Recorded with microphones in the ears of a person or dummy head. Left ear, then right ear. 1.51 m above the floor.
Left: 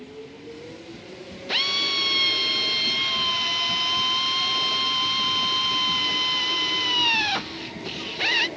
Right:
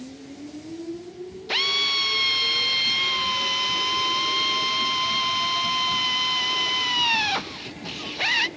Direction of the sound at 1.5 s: 5° right (ahead or behind).